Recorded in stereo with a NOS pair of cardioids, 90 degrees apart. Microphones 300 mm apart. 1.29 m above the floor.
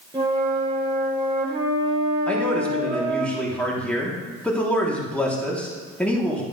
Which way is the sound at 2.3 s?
5° left.